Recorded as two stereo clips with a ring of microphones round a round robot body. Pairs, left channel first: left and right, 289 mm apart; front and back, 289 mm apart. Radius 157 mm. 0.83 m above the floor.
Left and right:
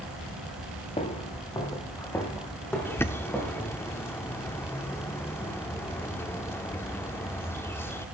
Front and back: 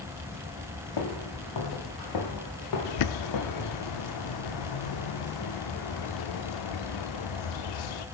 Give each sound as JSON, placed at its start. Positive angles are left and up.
{"t": 1.0, "sound": "footsteps", "azimuth_deg": 20, "distance_m": 3.5}
{"t": 2.9, "sound": "a bird", "azimuth_deg": 10, "distance_m": 1.0}